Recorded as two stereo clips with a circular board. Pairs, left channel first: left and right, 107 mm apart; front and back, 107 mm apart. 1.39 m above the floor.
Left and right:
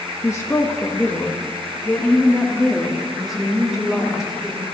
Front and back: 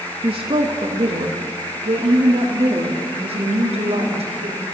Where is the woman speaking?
150° left, 1.6 m; by 4.7 s 175° right, 4 m.